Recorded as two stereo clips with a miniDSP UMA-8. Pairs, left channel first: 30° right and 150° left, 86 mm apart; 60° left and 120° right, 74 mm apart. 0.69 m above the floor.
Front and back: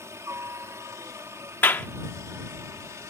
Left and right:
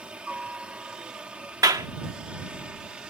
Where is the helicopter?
175° left.